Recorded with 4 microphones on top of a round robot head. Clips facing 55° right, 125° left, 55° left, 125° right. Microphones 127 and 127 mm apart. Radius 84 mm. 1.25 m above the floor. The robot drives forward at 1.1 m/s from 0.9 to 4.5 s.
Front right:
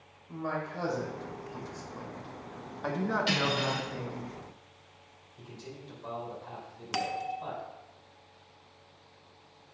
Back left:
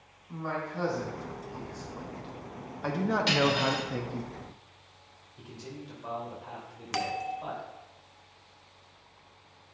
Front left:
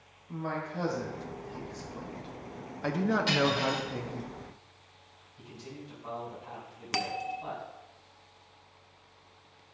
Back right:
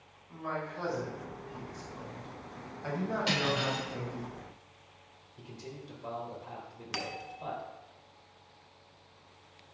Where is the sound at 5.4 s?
160° right, 2.5 m.